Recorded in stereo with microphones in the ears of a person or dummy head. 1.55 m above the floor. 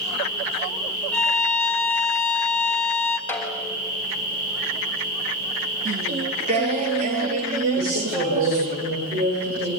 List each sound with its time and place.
1.1 s a violin: 5° left (ahead or behind), 0.7 m
3.3 s a snare drum: 5° left (ahead or behind), 3 m
5.8 s singing: 40° right (ahead or behind), 1.3 m
7.8 s a woman speaking: 65° right (ahead or behind), 7 m